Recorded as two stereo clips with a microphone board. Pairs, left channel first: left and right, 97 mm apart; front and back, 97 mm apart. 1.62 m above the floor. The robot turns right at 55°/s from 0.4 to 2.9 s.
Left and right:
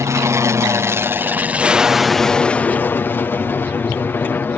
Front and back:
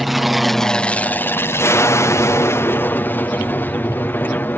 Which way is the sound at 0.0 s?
90° right.